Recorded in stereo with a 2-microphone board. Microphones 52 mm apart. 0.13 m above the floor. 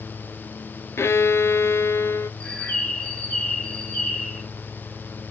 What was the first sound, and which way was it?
A violin, 55° left (ahead or behind).